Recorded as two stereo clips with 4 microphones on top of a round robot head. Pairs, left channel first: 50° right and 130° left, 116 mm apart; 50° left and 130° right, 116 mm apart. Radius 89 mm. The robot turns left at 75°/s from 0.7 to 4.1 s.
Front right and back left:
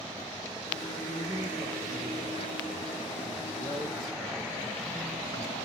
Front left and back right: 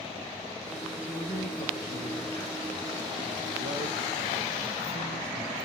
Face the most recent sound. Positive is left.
turn(degrees=-150)